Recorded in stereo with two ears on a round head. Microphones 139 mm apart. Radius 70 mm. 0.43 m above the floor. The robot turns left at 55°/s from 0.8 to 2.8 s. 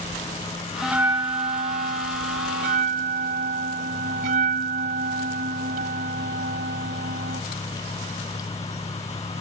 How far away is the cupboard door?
I don't hear a cupboard door.